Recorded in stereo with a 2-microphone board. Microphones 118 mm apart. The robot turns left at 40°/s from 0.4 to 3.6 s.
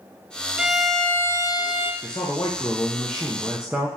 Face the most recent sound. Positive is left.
turn(degrees=-10)